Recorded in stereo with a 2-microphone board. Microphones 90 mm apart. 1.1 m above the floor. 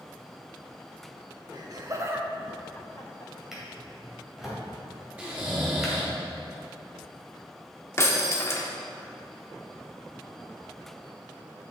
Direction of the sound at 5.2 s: 15° right (ahead or behind).